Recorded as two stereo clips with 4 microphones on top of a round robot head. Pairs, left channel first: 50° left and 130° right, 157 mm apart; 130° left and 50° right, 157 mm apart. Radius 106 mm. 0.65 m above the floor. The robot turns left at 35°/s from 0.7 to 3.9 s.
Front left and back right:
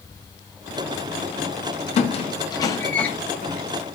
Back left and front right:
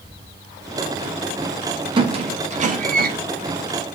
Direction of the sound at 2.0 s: 5° left.